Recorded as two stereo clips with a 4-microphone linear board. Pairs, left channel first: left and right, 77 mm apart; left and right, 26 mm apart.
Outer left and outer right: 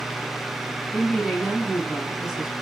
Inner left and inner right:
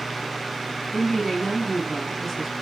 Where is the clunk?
I don't hear a clunk.